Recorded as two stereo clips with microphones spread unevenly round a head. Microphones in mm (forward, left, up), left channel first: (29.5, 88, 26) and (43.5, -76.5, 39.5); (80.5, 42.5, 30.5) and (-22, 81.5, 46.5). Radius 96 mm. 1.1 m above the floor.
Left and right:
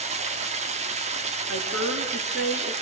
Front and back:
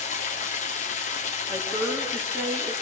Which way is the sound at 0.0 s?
35° right.